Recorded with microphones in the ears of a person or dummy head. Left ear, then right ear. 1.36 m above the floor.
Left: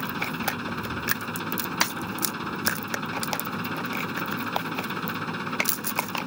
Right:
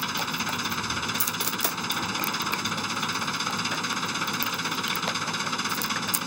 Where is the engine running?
70° right (ahead or behind).